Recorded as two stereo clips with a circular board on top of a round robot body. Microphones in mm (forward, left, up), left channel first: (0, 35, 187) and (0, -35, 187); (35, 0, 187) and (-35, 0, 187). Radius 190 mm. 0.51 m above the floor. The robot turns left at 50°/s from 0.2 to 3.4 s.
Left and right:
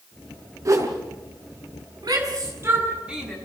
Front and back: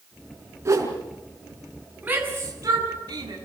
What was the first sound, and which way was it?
A whoosh, 130° right.